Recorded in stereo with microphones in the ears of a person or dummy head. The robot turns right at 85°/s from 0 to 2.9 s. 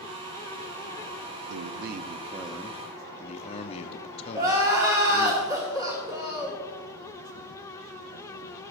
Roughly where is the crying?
Centre.